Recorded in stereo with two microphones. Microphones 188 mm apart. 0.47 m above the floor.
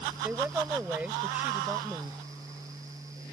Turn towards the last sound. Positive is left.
turn(degrees=-10)  # may be behind; listen again after turning